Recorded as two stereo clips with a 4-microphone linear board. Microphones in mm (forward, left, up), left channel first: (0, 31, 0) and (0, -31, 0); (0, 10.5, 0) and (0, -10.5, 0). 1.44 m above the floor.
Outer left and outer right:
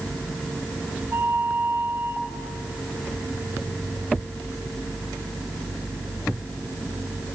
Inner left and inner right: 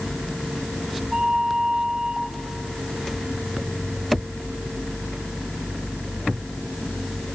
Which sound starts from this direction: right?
A flute, at 1.1 s.